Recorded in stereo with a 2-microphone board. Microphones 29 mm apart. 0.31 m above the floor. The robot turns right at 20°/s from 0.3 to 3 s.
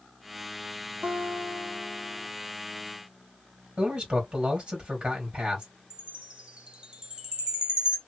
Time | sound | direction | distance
1.0 | a guitar | 60° right (ahead or behind) | 0.7 m
3.8 | a man speaking | 35° right (ahead or behind) | 1.7 m
5.9 | a chime | 30° right (ahead or behind) | 0.8 m